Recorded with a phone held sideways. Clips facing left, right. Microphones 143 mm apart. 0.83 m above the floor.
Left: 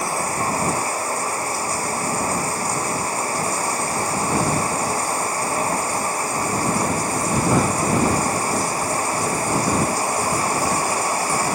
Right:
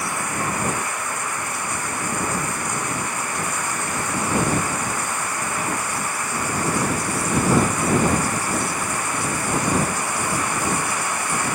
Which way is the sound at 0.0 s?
35° left (ahead or behind).